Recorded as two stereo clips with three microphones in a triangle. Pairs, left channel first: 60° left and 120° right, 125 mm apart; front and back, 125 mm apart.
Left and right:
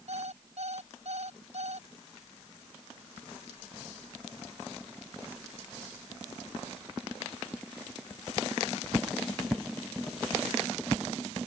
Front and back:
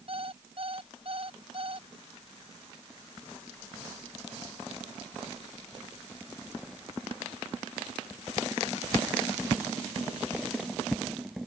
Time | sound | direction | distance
0.1 | an alarm clock | 140° right | ?